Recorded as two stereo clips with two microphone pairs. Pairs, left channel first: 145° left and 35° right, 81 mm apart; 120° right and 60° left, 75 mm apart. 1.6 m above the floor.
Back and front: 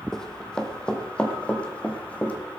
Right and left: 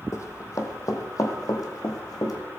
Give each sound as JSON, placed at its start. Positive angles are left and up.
{"t": 0.1, "sound": "running footsteps", "azimuth_deg": -135, "distance_m": 2.0}